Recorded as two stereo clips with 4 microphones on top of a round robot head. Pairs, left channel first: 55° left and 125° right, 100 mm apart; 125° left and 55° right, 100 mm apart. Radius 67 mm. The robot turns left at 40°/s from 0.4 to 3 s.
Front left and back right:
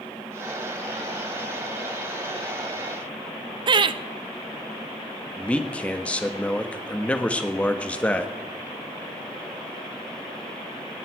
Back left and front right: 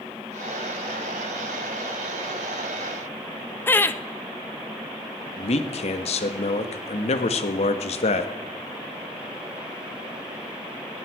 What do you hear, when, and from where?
3.7 s laughter: 165° right, 0.9 m
5.4 s a man speaking: 130° left, 1.4 m